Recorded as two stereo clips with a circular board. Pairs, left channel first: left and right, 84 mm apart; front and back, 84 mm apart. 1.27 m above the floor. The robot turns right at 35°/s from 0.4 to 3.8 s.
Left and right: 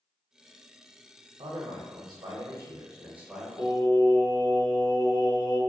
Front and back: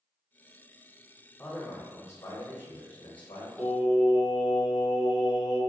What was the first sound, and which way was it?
A man speaking, 80° right.